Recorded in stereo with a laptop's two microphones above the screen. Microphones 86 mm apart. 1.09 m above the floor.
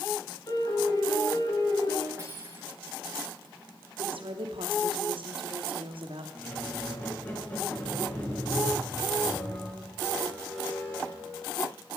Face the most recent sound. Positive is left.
turn(degrees=20)  # may be behind; listen again after turning